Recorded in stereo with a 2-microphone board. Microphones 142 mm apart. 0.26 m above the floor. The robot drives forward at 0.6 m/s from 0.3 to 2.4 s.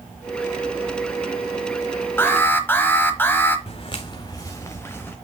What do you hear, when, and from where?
2.2 s an alarm: 15° left (ahead or behind), 1.2 m
3.7 s footsteps: 45° left (ahead or behind), 1.1 m; by 5.2 s 15° left (ahead or behind), 1.5 m